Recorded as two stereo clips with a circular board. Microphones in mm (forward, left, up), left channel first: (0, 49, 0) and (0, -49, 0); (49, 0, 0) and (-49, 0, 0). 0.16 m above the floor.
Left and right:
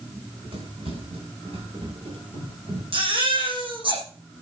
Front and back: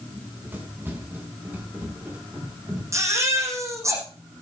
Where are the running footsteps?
110° right, 9 m; by 2.8 s 105° right, 11 m.